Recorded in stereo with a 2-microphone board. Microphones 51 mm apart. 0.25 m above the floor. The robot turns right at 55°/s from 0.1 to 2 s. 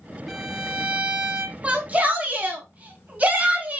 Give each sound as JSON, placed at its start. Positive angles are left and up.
{"t": 0.3, "sound": "a violin", "azimuth_deg": -175, "distance_m": 0.7}
{"t": 1.6, "sound": "a shout", "side_deg": -30, "distance_m": 1.8}